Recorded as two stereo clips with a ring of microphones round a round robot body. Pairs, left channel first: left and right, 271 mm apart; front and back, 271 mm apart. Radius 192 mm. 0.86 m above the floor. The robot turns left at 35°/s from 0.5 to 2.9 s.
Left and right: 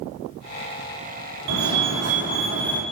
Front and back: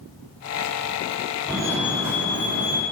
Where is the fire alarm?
90° right, 4 m; by 2.8 s 135° right, 4 m.